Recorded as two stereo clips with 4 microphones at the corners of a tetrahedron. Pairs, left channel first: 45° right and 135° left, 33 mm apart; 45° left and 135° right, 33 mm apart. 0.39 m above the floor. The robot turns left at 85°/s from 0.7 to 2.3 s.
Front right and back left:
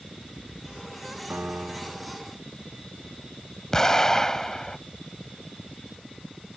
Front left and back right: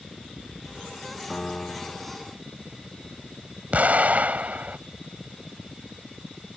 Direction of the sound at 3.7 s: 115° right.